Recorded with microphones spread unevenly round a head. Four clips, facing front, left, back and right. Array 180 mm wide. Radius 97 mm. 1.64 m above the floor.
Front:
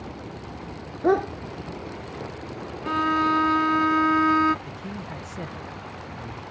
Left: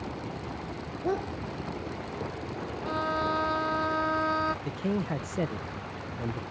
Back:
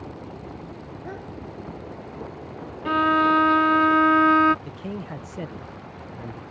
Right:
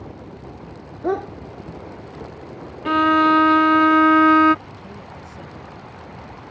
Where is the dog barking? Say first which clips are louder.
Right 7 dB, front 18 dB; 25° right.